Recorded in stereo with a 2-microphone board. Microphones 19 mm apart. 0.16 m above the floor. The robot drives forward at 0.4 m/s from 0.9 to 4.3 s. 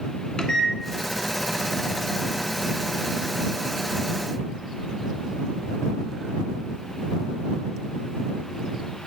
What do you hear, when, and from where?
0.4 s a microwave: 35° left (ahead or behind), 1.2 m